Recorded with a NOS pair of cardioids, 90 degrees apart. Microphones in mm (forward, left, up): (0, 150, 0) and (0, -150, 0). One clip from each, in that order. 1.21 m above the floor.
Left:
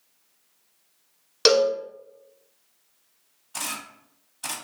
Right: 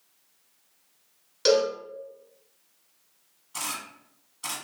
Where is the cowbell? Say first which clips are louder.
Left 3 dB; 55° left, 0.8 m.